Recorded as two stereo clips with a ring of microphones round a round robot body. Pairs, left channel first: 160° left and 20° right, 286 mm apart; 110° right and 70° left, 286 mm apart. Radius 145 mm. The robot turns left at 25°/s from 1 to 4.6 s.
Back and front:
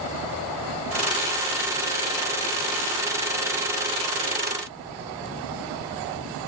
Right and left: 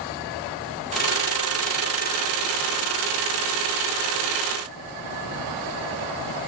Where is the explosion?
I don't hear an explosion.